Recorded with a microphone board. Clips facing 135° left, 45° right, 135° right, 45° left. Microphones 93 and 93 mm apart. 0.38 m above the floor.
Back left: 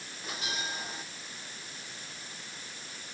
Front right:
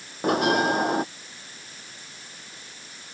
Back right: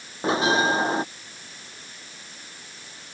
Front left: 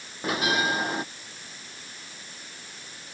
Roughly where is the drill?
I don't hear a drill.